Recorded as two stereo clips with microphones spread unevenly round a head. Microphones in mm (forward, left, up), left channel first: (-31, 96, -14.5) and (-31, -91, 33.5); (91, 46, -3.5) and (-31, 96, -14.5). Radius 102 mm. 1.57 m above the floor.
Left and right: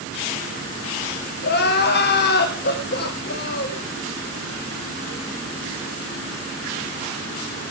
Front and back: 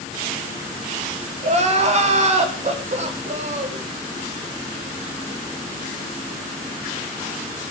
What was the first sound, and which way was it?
Crying, 125° left.